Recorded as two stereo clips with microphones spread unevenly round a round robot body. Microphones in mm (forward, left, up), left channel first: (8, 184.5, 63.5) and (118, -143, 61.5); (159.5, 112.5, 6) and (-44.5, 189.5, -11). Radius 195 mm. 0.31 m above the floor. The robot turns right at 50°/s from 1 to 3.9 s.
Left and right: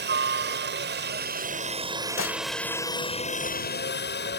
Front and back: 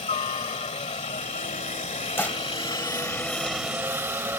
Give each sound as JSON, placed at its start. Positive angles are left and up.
{"t": 0.0, "sound": "a helicopter", "azimuth_deg": -55}
{"t": 2.2, "sound": "dishes clattering", "azimuth_deg": 60}